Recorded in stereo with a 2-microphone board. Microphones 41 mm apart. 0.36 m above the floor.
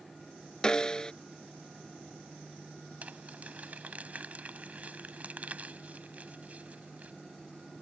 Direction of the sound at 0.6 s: 20° left (ahead or behind).